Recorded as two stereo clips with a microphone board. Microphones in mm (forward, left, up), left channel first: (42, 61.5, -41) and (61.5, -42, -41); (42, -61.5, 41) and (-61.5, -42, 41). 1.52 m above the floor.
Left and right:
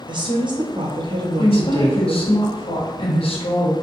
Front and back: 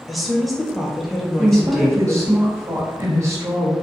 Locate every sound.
0.1 s a woman speaking: 100° right, 0.7 m
1.4 s a woman speaking: 110° left, 0.8 m